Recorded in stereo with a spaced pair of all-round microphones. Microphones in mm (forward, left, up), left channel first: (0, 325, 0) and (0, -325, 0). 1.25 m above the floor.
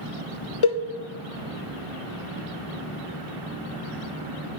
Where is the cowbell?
50° left (ahead or behind), 0.5 m.